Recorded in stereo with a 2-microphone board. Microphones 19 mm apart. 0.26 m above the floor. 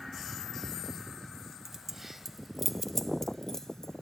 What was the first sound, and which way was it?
Keys jangling, 25° right (ahead or behind).